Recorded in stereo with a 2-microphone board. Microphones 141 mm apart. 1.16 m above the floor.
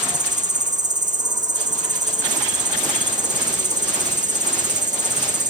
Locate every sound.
0.0 s an insect: 60° right (ahead or behind), 0.9 m